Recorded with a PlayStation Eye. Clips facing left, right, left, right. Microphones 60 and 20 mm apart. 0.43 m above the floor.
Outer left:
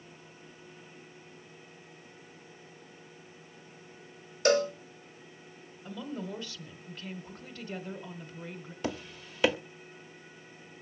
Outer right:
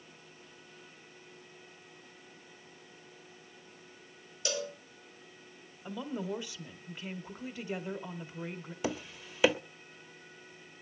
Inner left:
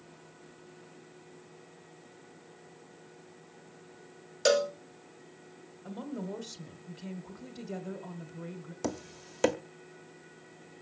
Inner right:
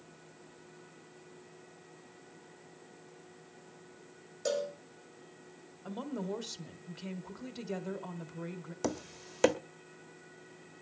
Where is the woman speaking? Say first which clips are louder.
Outer right 2 dB, inner right 1 dB; 15° right (ahead or behind), 1.5 m.